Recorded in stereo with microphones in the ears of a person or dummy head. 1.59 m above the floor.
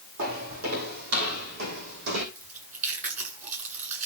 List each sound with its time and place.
0.2 s footsteps: 45° right (ahead or behind), 3 m; by 2.2 s 55° right (ahead or behind), 3 m
2.4 s chewing: 50° right (ahead or behind), 9.5 m